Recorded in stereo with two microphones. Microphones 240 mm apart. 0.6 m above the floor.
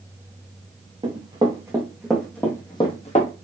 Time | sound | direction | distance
1.0 | running footsteps | 25° right (ahead or behind) | 2 m